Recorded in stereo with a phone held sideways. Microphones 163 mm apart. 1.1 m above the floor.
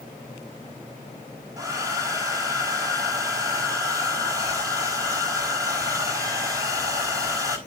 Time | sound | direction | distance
1.6 | a hair dryer | 20° right (ahead or behind) | 4 m